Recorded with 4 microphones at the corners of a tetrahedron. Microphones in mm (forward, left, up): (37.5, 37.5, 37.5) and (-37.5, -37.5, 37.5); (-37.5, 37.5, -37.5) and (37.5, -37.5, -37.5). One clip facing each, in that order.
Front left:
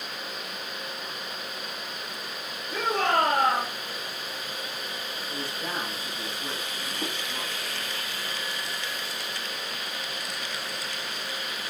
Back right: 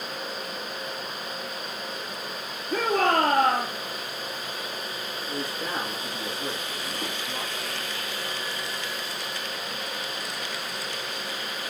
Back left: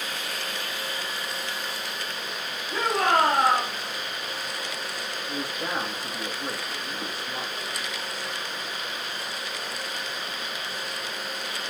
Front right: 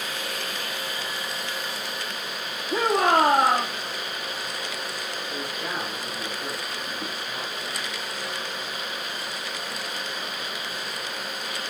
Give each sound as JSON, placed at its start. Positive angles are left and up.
{"t": 2.7, "sound": "a shout", "azimuth_deg": -105, "distance_m": 4.5}
{"t": 5.3, "sound": "a man speaking", "azimuth_deg": -170, "distance_m": 5.0}